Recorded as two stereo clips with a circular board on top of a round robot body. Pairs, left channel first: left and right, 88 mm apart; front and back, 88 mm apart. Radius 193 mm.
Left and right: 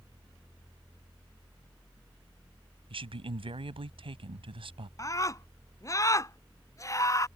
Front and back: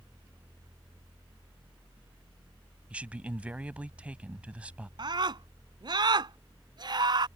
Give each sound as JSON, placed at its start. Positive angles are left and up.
{"t": 2.9, "sound": "a man speaking", "azimuth_deg": -105}
{"t": 5.0, "sound": "a scream", "azimuth_deg": 145}